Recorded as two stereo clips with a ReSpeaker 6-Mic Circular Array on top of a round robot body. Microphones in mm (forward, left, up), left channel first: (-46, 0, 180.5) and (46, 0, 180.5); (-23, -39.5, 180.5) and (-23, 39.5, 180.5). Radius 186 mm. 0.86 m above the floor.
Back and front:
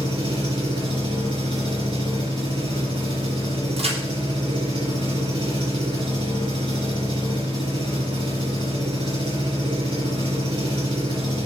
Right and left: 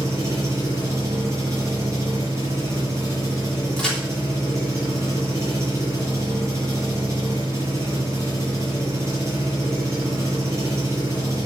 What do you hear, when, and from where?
0.0 s an engine running: 35° left, 5 m
3.8 s a crack: 5° right, 3.5 m